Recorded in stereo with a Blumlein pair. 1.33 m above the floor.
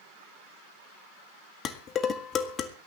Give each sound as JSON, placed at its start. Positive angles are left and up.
{"t": 1.6, "sound": "dishes clattering", "azimuth_deg": 25, "distance_m": 1.6}